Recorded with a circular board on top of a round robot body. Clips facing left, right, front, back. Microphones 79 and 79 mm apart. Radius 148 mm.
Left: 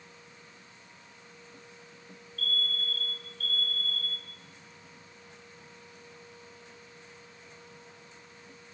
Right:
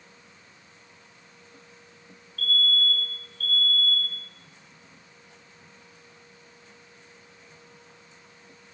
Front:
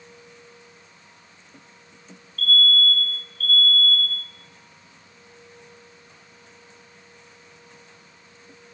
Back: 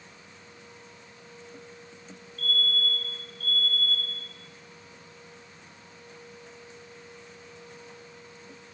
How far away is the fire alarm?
About 9 m.